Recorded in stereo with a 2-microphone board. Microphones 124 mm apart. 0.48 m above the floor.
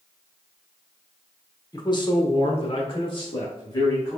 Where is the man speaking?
30° left (ahead or behind), 1.0 m; by 4.2 s 35° left (ahead or behind), 1.9 m.